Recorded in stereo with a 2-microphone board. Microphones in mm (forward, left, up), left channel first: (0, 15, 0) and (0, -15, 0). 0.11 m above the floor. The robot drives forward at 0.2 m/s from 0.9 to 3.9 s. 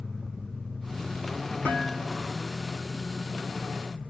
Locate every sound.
1.6 s dishes clattering: 60° left (ahead or behind), 1.8 m